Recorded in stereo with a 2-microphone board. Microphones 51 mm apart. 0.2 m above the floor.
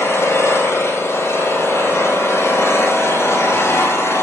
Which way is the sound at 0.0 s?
70° left (ahead or behind).